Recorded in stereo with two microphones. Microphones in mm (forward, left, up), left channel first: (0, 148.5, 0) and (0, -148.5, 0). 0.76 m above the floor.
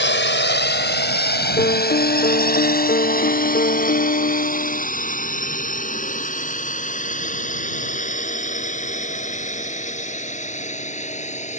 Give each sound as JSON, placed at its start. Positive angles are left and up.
{"t": 0.0, "sound": "a drone", "side_deg": 40}
{"t": 1.6, "sound": "a piano", "side_deg": 35}